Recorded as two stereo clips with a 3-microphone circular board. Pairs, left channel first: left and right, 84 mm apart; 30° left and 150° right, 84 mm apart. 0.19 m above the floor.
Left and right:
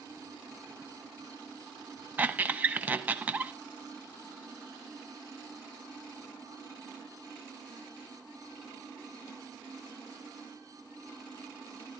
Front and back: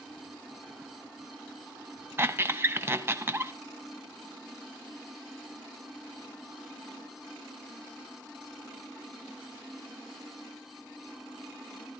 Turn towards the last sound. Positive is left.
turn(degrees=-135)